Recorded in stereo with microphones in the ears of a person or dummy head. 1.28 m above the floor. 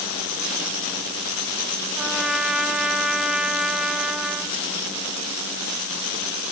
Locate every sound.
2.0 s a trumpet: 5° right (ahead or behind), 0.6 m